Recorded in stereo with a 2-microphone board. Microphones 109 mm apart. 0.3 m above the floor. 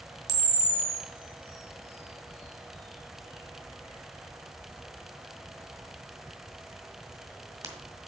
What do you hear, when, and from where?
0.3 s a camera shutter: 30° right (ahead or behind), 1.9 m